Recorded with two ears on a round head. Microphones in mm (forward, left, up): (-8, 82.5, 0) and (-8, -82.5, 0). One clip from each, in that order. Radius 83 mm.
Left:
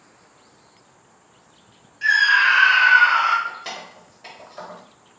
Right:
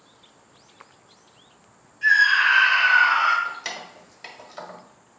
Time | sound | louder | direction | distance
2.0 | a scream | left 1 dB | 35° left (ahead or behind) | 1.2 m
3.5 | keys jangling | even | 55° right (ahead or behind) | 1.1 m